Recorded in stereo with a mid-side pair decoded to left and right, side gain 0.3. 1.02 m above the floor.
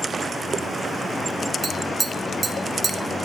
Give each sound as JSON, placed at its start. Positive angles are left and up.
{"t": 1.6, "sound": "tapping", "azimuth_deg": -50, "distance_m": 0.9}